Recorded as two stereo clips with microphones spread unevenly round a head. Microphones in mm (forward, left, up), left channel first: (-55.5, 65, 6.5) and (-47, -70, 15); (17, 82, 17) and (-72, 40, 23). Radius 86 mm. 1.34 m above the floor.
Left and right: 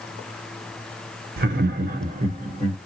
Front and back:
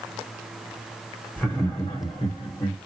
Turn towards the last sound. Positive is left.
turn(degrees=-30)